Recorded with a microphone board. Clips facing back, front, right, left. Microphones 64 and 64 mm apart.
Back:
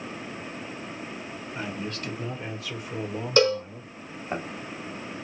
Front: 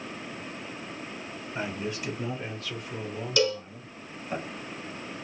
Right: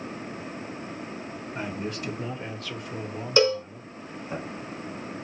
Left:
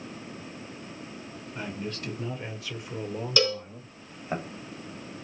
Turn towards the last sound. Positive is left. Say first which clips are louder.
# back 5 dB, right 6 dB
turn(degrees=-150)